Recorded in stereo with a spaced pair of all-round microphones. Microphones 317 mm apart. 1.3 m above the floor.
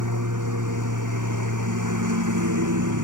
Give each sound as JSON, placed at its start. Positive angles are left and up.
{"t": 0.0, "sound": "a lawn mower", "side_deg": -70}